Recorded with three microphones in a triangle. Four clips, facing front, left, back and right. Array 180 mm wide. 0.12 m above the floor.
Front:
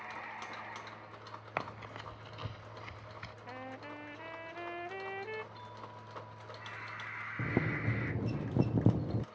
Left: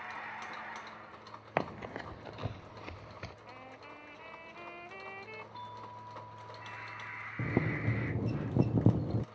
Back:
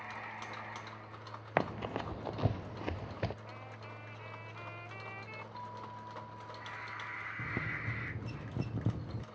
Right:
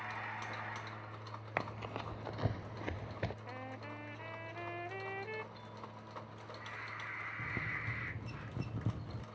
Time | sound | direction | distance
1.6 | running footsteps | 145° left | ?
3.5 | a trumpet | 30° right | ?
5.5 | a doorbell | 130° left | ?
7.4 | boiling | 60° left | ?